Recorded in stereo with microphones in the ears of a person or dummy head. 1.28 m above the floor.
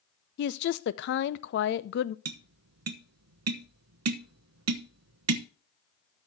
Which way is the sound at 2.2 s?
75° right (ahead or behind).